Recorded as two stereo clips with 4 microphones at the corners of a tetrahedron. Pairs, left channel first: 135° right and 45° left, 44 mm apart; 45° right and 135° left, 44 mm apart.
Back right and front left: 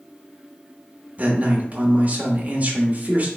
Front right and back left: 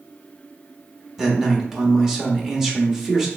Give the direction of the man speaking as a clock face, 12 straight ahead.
10 o'clock.